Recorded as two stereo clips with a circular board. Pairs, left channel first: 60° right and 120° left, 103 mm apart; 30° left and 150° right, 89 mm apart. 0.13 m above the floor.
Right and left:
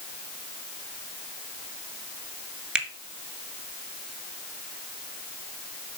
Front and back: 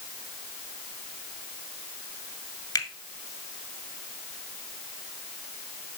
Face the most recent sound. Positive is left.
turn(degrees=40)